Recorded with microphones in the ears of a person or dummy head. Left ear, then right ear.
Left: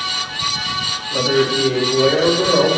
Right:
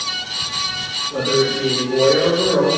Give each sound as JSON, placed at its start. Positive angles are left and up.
{"t": 1.1, "sound": "a man speaking", "side_deg": 10, "distance_m": 3.0}